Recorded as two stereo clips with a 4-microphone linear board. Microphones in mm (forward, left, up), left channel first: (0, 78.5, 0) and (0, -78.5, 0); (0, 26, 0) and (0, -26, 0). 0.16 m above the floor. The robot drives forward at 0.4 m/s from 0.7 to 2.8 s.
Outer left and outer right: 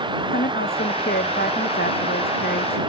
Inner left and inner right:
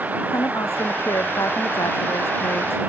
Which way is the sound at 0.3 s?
80° left.